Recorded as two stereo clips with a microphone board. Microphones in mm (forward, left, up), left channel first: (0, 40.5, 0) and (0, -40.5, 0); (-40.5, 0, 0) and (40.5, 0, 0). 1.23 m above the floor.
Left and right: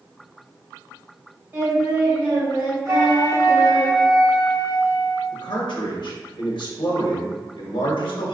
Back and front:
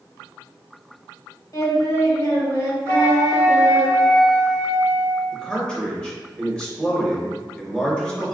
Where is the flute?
135° right, 0.9 m.